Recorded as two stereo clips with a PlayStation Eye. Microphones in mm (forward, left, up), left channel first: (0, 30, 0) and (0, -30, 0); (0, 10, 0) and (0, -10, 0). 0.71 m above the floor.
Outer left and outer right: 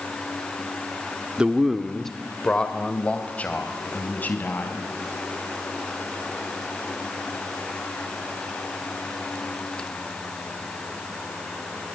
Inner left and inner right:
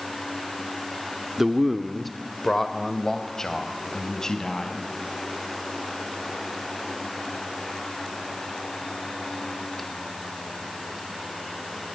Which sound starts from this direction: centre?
A man speaking, at 1.4 s.